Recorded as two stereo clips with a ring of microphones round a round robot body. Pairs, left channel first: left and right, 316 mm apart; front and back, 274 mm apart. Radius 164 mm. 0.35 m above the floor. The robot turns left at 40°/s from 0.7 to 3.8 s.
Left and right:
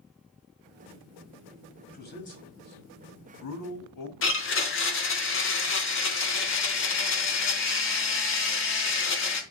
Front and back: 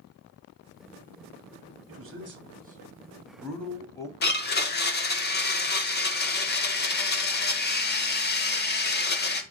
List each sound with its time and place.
1.9 s a man speaking: 155° left, 2.5 m; by 4.1 s 80° left, 2.5 m
4.2 s a blender: 45° left, 1.2 m